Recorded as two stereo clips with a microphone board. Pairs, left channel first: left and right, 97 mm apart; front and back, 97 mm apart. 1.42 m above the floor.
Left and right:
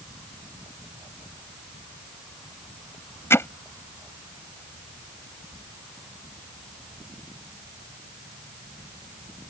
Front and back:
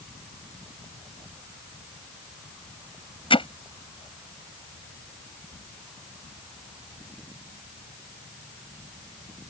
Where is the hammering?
25° left.